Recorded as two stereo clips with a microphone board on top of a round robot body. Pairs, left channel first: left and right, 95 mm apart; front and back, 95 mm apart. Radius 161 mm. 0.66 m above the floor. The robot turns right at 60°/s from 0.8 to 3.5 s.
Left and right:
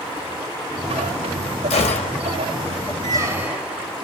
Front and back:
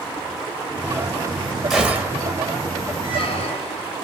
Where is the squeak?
40° right, 0.8 m; by 3.9 s 15° right, 0.8 m.